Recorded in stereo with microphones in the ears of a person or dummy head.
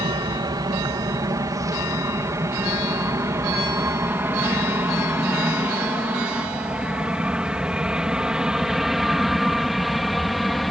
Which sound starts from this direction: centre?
An aircraft, at 0.0 s.